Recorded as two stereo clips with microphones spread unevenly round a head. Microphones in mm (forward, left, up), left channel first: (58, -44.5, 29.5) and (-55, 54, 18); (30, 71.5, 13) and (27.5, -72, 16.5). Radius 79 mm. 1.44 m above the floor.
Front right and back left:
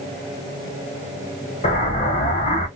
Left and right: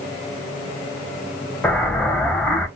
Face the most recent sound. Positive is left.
turn(degrees=5)